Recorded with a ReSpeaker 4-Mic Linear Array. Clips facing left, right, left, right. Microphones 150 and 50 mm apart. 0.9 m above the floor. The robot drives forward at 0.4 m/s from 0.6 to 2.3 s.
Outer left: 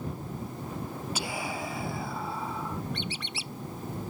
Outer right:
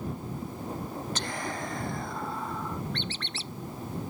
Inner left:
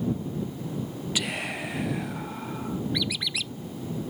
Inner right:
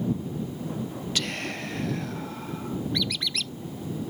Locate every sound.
1.1 s whispering: 10° left (ahead or behind); by 2.8 s 5° left (ahead or behind)
2.9 s a squeak: 10° left (ahead or behind)